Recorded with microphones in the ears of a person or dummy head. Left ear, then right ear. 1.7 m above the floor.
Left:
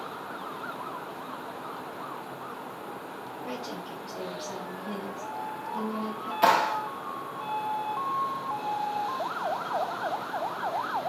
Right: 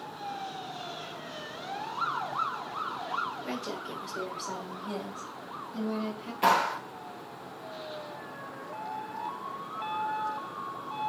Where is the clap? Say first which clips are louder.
Left 2 dB; 20° left (ahead or behind), 0.6 m.